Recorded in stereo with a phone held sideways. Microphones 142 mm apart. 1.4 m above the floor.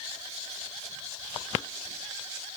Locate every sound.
Only background noise.